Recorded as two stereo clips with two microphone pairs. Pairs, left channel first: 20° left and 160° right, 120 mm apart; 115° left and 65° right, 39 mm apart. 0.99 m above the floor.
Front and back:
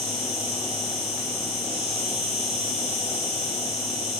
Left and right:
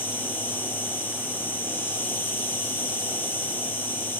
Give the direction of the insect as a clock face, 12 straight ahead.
8 o'clock.